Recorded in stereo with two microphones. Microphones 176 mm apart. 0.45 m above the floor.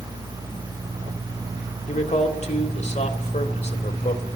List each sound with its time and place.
1.9 s a man speaking: 40° left (ahead or behind), 2 m